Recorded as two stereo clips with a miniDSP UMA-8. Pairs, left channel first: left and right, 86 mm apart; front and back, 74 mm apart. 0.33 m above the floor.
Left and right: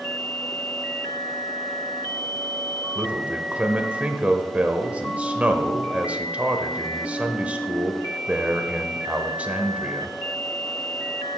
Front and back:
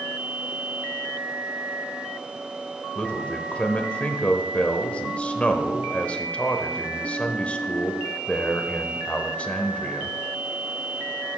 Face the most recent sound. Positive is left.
turn(degrees=-40)